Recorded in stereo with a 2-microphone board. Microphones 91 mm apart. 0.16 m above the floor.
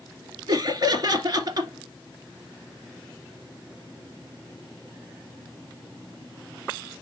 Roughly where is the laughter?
Right.